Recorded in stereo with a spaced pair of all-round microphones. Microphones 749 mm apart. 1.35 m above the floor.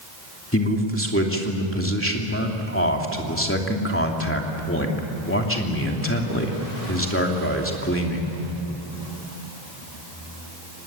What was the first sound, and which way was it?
A man speaking, 15° left (ahead or behind).